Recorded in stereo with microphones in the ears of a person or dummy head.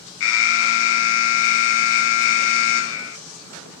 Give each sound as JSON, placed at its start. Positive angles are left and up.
{"t": 0.2, "sound": "an alarm", "side_deg": 60, "distance_m": 0.5}